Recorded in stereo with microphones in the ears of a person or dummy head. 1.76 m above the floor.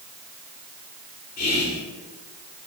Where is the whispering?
40° left (ahead or behind), 0.5 m.